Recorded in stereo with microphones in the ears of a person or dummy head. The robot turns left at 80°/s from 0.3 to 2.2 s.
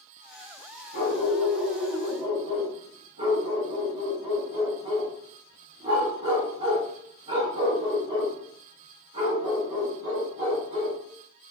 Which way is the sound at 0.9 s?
40° left (ahead or behind).